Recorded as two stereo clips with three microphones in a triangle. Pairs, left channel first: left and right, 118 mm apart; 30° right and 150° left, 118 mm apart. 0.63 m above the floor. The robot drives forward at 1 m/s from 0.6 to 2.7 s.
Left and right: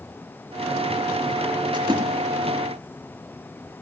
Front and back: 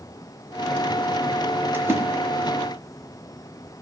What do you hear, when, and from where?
1.7 s a splash: 135° right, 3 m; by 2.0 s 140° right, 3 m